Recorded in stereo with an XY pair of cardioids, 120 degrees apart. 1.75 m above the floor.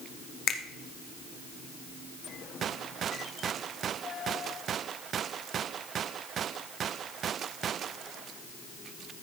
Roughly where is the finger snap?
Ahead left.